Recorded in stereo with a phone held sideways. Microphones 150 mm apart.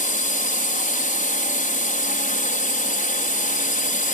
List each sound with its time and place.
0.0 s a drone: 60° left (ahead or behind)